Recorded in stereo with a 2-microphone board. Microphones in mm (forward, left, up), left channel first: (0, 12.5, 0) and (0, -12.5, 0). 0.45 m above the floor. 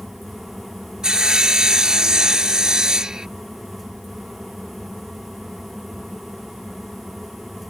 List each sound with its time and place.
1.0 s sawing: 25° right (ahead or behind)